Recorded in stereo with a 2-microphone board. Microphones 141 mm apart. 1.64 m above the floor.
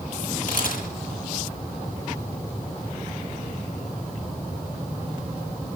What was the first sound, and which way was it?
A camera shutter, 70° left (ahead or behind).